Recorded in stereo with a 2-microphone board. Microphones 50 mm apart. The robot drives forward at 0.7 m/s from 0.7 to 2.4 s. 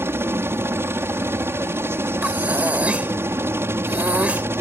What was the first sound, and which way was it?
A helicopter, 60° right (ahead or behind).